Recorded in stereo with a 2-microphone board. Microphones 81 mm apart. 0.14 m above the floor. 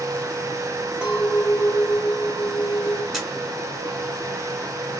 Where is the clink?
15° right (ahead or behind), 1.7 m.